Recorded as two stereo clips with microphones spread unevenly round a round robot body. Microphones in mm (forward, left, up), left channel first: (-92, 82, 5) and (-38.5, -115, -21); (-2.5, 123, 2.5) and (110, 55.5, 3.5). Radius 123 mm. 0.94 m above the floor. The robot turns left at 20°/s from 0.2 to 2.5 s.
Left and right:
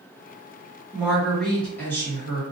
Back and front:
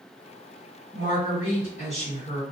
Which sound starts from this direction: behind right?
A woman speaking, at 0.9 s.